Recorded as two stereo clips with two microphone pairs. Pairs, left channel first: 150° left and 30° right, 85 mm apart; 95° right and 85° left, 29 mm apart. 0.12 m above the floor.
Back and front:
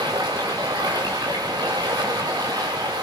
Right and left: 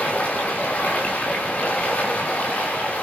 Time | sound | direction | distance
0.0 | running water | 70° right | 7 m